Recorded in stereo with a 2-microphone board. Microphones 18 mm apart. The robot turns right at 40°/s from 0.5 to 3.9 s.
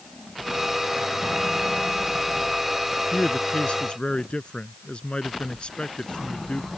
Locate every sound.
3.1 s a man speaking: 80° left; by 6.7 s 110° left